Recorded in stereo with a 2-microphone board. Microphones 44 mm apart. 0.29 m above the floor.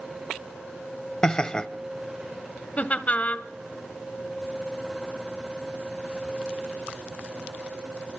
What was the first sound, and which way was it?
Laughter, 20° left (ahead or behind).